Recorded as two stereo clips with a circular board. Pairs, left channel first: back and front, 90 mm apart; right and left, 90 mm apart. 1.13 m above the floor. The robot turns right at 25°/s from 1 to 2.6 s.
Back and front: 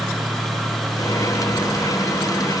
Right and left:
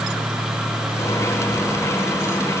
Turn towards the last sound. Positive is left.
No sound to turn to.